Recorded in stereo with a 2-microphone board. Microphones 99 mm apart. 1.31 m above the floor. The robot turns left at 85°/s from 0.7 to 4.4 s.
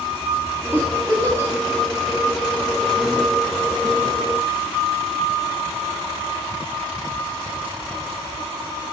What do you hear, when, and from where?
0.7 s a giggle: 20° right (ahead or behind), 0.5 m; by 1.5 s 30° left (ahead or behind), 0.5 m